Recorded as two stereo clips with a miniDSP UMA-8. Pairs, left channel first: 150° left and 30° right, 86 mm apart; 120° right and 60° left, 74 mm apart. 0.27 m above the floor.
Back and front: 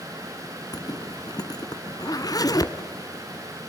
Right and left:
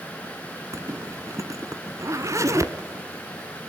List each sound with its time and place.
0.7 s a zipper: 105° left, 1.3 m